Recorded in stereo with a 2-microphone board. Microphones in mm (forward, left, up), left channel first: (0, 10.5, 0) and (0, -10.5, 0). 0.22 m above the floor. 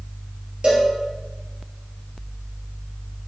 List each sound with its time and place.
0.6 s a cowbell: 50° right (ahead or behind), 3 m